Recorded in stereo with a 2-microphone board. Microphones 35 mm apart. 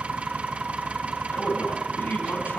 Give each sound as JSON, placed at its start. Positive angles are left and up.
{"t": 0.0, "sound": "an engine running", "side_deg": -40, "distance_m": 3.5}
{"t": 1.3, "sound": "a man speaking", "side_deg": 65, "distance_m": 6.0}